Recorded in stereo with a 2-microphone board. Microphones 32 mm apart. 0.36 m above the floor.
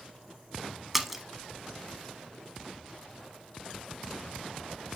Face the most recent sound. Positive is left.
turn(degrees=-5)  # may be behind; listen again after turning